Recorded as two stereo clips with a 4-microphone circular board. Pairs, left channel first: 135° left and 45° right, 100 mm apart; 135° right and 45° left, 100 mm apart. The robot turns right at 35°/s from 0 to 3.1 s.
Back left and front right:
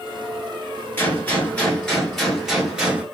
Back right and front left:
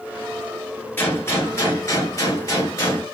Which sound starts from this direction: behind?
A gunshot, at 1.0 s.